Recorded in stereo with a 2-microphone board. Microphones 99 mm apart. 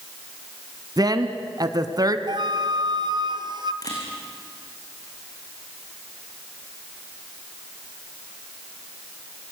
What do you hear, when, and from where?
1.0 s a woman speaking: 40° right (ahead or behind), 1.6 m
2.3 s a flute: 50° right (ahead or behind), 1.1 m
3.8 s a camera shutter: 40° left (ahead or behind), 6.5 m